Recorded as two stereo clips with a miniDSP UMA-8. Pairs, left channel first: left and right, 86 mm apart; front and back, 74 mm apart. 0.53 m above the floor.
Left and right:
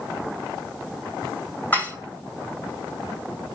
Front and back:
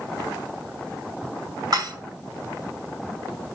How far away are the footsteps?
I don't hear footsteps.